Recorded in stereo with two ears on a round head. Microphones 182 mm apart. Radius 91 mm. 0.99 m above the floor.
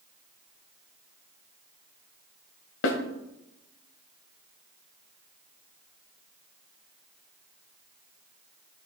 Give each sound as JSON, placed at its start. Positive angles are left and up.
{"t": 2.8, "sound": "a snare drum", "side_deg": 65, "distance_m": 1.8}